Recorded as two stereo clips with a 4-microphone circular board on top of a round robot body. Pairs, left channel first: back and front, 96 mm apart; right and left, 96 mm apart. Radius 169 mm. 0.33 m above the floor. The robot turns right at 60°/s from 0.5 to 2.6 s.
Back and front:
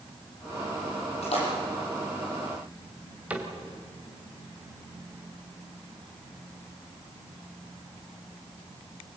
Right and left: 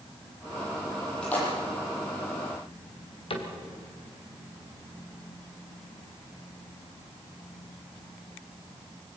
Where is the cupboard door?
75° right, 3 m.